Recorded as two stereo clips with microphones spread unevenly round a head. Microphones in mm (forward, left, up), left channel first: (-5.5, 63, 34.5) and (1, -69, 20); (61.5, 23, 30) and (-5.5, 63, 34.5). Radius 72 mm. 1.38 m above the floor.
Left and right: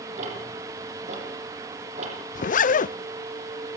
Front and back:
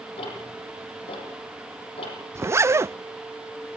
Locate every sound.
0.2 s ticking: 45° right, 8.5 m
2.4 s a zipper: 95° left, 0.5 m